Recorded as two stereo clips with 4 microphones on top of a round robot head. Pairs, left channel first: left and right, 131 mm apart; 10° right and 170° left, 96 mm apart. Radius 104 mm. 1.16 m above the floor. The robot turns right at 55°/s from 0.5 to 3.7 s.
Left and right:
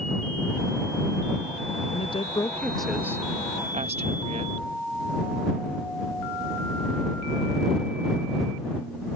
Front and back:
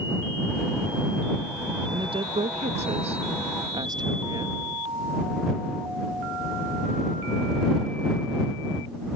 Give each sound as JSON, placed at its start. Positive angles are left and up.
{"t": 1.9, "sound": "a woman speaking", "azimuth_deg": 130}